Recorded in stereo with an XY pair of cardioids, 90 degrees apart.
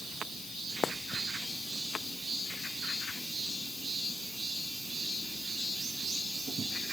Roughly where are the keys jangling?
I don't hear keys jangling.